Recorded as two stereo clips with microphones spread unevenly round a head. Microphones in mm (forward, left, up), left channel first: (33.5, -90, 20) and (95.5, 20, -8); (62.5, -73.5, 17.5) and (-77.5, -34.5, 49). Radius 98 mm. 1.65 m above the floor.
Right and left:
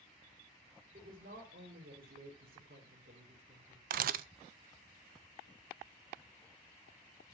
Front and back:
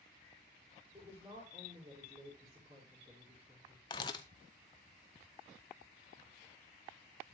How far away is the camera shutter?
About 0.5 m.